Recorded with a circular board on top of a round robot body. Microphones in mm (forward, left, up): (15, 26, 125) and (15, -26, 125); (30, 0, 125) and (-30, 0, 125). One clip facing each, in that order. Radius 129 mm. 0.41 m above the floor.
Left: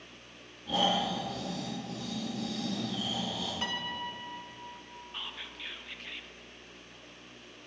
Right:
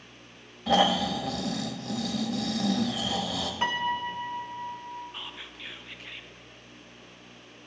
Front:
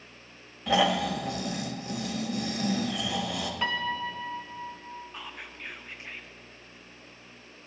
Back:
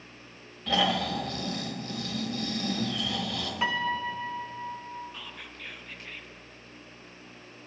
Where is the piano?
105° right, 0.6 m.